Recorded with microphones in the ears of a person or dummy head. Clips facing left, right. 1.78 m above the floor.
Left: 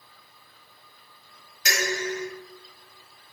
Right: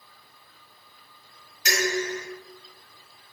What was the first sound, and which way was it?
Dishes clattering, 55° left (ahead or behind).